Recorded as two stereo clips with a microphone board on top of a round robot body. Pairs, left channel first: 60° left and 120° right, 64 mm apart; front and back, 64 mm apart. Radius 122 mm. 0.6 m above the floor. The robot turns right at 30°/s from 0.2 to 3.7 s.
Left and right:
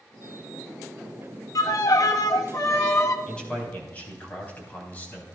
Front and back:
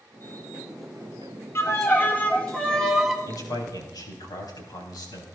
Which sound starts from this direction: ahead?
A man speaking, at 3.3 s.